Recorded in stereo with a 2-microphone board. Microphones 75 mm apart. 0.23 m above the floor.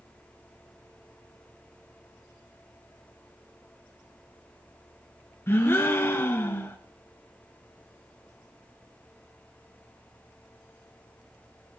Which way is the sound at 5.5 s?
30° left (ahead or behind).